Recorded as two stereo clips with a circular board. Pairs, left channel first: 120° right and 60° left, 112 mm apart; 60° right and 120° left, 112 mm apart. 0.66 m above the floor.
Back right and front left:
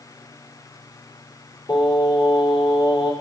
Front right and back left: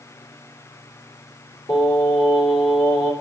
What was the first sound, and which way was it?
Singing, 85° right.